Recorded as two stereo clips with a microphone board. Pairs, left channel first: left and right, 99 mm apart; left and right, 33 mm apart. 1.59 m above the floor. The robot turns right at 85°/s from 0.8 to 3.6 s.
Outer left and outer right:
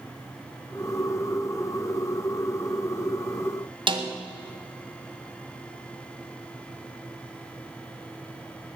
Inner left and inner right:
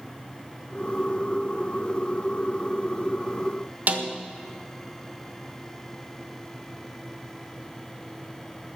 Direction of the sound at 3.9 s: 55° right (ahead or behind).